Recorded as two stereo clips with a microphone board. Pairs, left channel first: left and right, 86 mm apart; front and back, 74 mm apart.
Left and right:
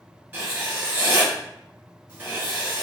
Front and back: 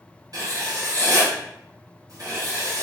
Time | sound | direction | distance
0.3 | writing | 145° right | 1.7 m